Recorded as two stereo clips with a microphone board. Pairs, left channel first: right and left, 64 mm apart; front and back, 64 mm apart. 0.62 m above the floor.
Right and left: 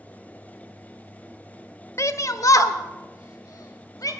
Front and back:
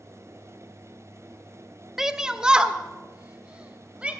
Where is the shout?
100° right, 0.8 m; by 4.1 s 110° right, 3 m.